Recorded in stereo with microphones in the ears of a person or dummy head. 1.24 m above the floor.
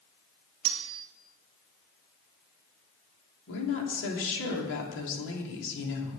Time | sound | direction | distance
0.7 | cutlery clinking | 65° right (ahead or behind) | 0.8 m
3.5 | a woman speaking | 70° left (ahead or behind) | 3 m